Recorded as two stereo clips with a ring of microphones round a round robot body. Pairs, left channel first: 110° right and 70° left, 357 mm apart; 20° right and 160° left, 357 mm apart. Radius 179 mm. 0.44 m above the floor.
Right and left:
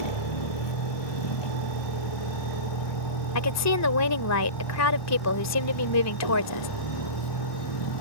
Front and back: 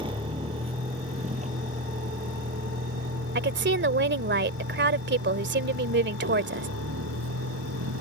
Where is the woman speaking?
150° right.